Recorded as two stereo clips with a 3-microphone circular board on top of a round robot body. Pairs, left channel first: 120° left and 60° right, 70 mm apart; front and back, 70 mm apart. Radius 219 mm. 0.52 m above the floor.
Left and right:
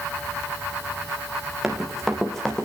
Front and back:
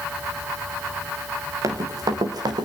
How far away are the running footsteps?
About 3.5 m.